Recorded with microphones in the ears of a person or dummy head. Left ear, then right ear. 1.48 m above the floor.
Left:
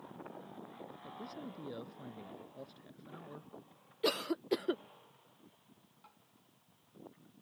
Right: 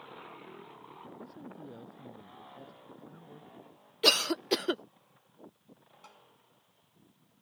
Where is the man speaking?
35° left (ahead or behind).